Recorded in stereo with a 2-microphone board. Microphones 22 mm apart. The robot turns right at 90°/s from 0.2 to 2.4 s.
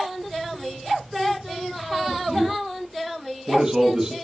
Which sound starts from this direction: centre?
A man speaking, at 1.9 s.